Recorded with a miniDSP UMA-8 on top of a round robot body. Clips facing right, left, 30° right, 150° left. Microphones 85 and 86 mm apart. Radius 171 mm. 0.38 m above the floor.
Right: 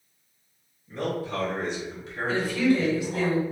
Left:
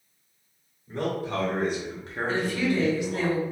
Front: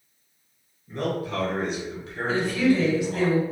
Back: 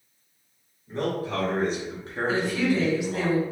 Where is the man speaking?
95° left, 1.7 m; by 3.3 s 130° right, 1.1 m.